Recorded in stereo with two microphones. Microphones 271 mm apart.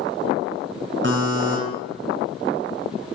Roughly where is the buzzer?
Right.